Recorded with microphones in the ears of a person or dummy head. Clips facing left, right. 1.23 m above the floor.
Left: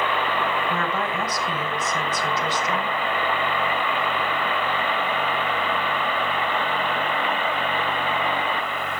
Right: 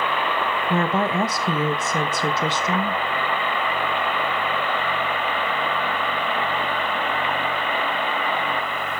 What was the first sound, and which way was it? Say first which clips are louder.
A woman speaking: right 4 dB; 25° right (ahead or behind).